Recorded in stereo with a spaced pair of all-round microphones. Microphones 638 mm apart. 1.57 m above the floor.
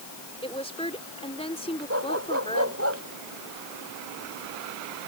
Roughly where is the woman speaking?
Centre.